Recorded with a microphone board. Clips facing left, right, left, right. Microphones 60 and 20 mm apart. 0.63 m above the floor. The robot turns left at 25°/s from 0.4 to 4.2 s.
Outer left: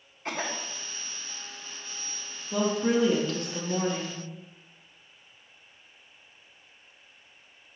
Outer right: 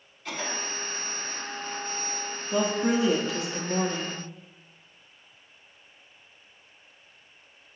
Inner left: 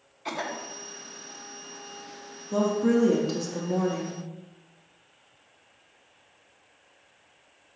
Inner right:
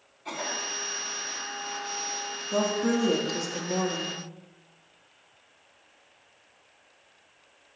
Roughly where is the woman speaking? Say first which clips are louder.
Even, inner left 3 dB; centre.